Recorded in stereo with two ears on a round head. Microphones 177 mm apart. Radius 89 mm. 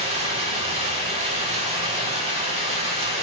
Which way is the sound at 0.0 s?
30° right (ahead or behind).